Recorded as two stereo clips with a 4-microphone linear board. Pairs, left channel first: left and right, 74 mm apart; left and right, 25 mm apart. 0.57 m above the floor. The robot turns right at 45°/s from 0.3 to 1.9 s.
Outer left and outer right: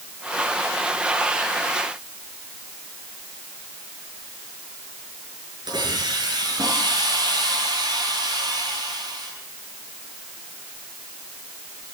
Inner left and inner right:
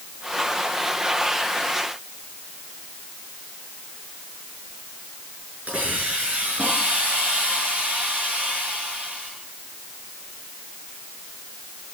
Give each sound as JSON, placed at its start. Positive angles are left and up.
{"t": 5.7, "sound": "a hiss", "side_deg": -75, "distance_m": 7.0}